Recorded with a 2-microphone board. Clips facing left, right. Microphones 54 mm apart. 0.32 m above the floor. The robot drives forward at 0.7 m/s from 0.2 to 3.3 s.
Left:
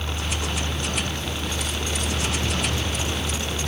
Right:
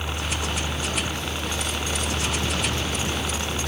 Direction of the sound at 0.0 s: 20° right (ahead or behind).